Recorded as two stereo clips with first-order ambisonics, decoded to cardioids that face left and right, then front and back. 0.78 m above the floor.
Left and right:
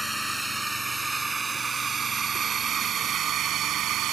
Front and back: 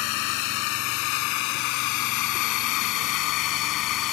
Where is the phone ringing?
I don't hear a phone ringing.